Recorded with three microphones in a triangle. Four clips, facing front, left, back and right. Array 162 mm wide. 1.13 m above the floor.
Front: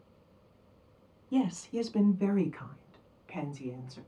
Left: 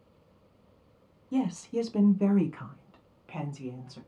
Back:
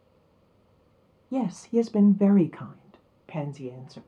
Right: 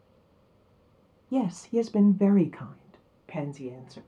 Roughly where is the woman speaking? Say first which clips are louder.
Right 3 dB, back 5 dB; behind right.